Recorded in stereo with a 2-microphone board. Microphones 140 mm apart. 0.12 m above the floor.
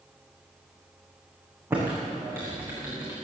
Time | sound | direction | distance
1.7 | typing on a keyboard | 15° right (ahead or behind) | 8.5 m